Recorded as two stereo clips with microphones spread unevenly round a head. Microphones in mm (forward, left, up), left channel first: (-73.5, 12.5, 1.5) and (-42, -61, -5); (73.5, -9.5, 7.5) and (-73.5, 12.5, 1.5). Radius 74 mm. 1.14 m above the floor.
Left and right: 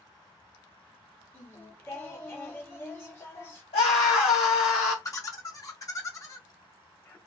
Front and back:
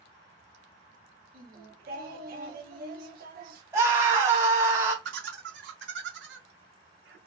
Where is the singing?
175° left, 1.2 m.